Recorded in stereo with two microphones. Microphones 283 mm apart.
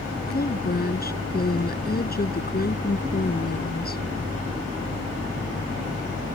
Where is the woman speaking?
35° left (ahead or behind).